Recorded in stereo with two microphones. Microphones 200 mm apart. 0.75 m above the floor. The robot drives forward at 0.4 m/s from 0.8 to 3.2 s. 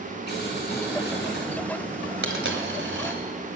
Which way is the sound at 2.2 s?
75° right (ahead or behind).